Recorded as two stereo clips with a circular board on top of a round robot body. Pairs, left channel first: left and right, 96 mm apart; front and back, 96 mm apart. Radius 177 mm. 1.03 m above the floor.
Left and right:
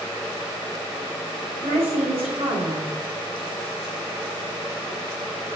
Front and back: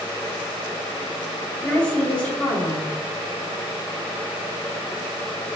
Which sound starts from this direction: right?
A woman speaking, at 1.6 s.